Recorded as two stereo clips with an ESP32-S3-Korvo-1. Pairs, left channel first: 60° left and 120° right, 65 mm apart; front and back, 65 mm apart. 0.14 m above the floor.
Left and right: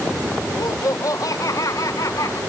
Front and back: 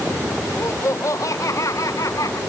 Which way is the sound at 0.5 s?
40° left.